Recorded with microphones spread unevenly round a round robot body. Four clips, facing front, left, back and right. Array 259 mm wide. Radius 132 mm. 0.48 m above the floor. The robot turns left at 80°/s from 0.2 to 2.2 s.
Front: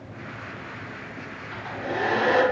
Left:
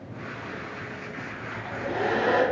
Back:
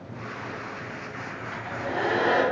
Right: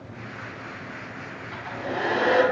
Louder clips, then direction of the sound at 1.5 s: Even, front 1 dB; 70° left.